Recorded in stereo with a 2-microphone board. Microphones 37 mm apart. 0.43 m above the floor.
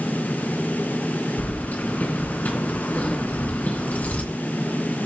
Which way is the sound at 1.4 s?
45° left (ahead or behind).